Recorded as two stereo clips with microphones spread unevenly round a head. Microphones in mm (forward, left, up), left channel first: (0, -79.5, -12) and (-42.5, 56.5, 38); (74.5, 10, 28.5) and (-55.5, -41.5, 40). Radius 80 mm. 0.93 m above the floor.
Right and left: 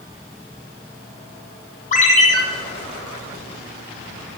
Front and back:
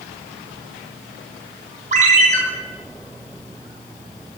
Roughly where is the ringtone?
Behind right.